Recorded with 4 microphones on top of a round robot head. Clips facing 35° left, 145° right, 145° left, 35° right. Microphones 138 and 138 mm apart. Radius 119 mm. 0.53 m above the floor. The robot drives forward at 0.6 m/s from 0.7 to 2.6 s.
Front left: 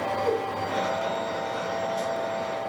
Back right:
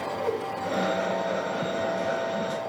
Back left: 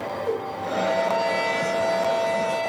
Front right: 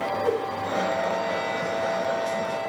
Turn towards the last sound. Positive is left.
turn(degrees=-105)